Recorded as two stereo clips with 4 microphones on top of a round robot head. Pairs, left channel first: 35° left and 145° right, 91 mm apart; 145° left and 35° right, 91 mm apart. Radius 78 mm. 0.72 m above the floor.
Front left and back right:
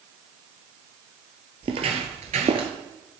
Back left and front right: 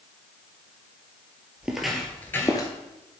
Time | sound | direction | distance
1.6 | footsteps | 115° right | 1.2 m